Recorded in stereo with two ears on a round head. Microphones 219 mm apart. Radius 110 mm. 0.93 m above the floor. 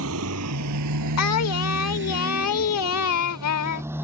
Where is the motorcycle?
60° right (ahead or behind); by 4.0 s 10° right (ahead or behind).